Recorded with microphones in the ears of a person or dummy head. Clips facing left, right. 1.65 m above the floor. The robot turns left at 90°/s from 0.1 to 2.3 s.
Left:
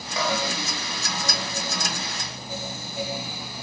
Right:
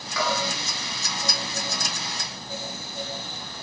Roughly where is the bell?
Left.